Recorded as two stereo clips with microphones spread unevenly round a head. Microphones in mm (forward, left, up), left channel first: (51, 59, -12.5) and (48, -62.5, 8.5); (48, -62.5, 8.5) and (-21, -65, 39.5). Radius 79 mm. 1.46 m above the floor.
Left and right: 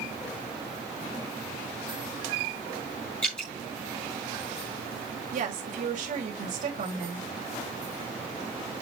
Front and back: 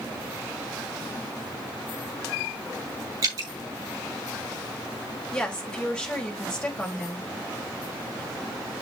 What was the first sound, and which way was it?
Dripping, 175° left.